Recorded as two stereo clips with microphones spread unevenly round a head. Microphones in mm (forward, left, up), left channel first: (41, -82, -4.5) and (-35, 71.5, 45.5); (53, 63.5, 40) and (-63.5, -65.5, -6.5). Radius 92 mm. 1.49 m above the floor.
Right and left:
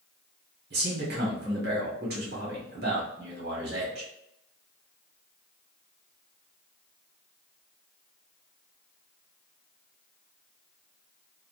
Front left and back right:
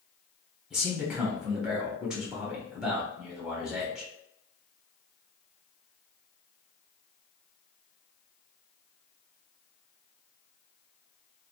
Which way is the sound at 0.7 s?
135° left.